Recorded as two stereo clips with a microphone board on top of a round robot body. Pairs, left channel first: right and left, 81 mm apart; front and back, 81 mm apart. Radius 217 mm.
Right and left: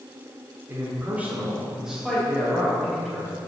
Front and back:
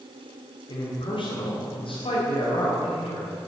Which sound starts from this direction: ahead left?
A man speaking, at 0.7 s.